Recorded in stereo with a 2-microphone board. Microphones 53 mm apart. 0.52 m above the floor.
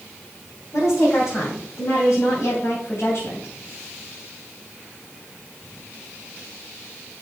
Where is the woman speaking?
80° left, 3.5 m; by 3.5 s 55° left (ahead or behind), 3 m.